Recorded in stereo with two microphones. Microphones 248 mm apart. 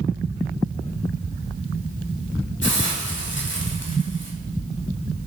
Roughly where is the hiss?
Left.